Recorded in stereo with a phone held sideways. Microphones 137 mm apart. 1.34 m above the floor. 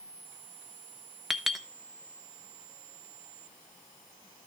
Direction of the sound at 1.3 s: Centre (ahead or behind).